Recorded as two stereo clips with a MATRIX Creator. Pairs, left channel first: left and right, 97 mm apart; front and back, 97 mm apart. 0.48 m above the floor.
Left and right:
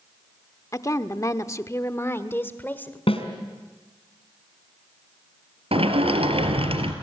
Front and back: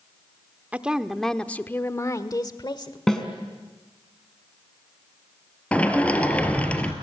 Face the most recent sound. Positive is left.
turn(degrees=-75)